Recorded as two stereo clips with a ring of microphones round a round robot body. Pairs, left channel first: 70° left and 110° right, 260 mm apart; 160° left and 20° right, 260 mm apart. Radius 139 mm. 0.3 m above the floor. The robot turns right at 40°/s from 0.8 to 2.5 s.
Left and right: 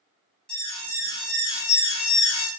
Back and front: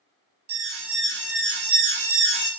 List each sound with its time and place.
0.5 s an alarm: 20° right, 4.5 m; by 2.5 s 50° left, 4.5 m